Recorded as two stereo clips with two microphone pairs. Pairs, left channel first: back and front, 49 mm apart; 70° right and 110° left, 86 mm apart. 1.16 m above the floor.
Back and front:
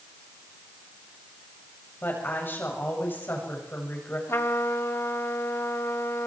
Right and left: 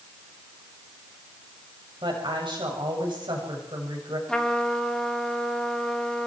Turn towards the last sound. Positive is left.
turn(degrees=-155)